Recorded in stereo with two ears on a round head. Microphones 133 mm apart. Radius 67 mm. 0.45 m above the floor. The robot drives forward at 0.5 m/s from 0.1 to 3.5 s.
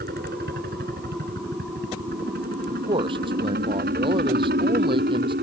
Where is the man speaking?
35° right (ahead or behind).